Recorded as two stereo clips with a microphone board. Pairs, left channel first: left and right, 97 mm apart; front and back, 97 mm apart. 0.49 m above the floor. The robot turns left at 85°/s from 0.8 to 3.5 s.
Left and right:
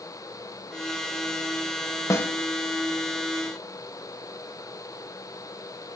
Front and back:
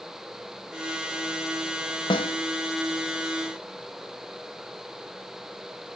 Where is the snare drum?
35° left, 0.9 m; by 2.4 s 10° left, 0.9 m.